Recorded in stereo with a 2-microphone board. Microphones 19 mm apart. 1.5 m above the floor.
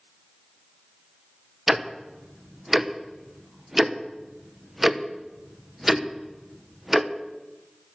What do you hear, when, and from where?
1.7 s ticking: 10° right (ahead or behind), 0.9 m